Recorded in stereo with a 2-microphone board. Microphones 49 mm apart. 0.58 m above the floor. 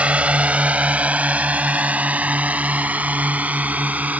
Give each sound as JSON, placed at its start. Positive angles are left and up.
{"t": 0.0, "sound": "a drone", "side_deg": -25}